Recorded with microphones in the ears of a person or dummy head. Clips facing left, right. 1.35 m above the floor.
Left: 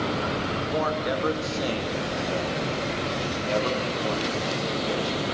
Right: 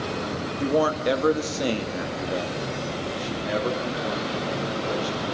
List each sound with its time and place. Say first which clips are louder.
0.6 s a man speaking: right 8 dB; 60° right (ahead or behind), 1.8 m; by 5.3 s 5° right (ahead or behind), 4.5 m